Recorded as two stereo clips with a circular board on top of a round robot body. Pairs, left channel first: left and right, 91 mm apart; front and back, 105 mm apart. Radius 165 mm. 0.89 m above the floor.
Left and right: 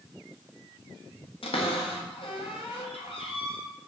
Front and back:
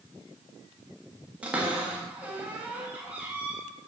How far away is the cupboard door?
About 1.3 m.